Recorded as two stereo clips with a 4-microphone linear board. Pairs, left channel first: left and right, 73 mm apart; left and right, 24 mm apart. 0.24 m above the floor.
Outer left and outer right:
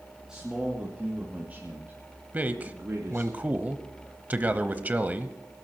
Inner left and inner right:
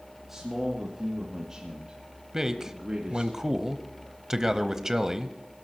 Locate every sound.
0.3 s a man speaking: 10° right (ahead or behind), 3 m; by 3.3 s 45° right (ahead or behind), 3 m
2.3 s a man speaking: 25° right (ahead or behind), 0.9 m